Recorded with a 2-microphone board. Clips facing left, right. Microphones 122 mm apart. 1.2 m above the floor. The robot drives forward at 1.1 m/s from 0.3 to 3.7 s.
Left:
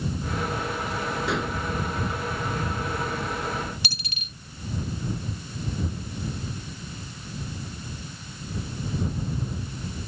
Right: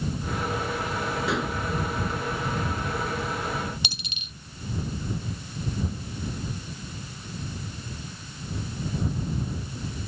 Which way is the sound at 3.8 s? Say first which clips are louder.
Left 1 dB; 20° right (ahead or behind).